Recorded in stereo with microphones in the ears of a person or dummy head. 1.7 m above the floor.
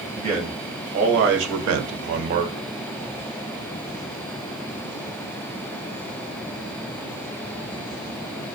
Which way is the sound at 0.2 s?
35° right (ahead or behind).